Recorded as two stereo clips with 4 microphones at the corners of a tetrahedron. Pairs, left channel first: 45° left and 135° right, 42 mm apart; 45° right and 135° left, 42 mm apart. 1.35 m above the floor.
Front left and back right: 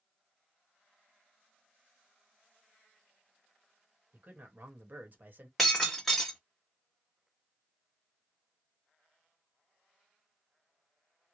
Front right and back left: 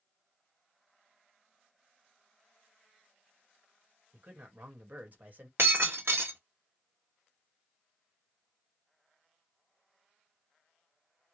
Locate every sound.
4.1 s a man speaking: straight behind, 1.1 m
5.6 s breaking glass: 130° left, 1.2 m